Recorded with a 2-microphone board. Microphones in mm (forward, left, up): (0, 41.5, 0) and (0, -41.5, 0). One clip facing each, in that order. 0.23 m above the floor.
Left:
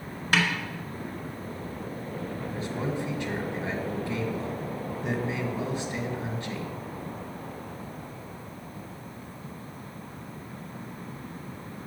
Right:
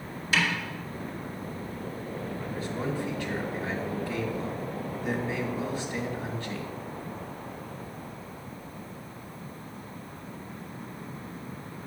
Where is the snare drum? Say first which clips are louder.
Left 2 dB; 55° left (ahead or behind), 1.7 m.